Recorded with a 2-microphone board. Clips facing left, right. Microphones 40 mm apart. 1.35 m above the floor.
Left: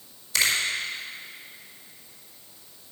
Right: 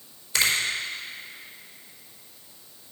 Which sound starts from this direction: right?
A finger snap, at 0.3 s.